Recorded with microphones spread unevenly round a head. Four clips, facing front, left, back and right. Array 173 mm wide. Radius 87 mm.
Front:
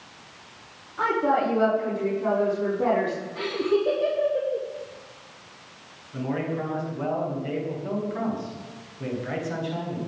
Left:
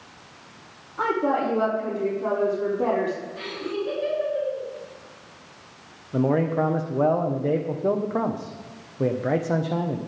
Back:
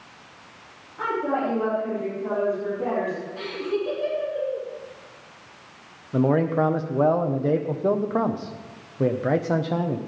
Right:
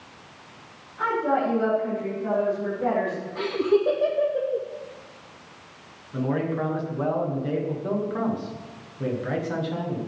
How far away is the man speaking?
About 1.4 m.